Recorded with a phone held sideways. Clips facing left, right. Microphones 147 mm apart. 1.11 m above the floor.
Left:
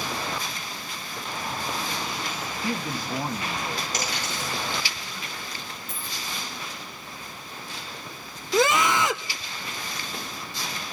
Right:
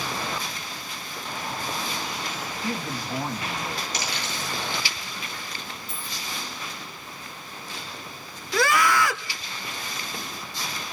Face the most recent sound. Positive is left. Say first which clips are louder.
# left 1 dB
turn(degrees=20)  # may be behind; listen again after turning